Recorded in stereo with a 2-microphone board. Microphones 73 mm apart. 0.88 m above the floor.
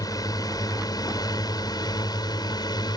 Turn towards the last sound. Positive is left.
turn(degrees=75)  # may be behind; listen again after turning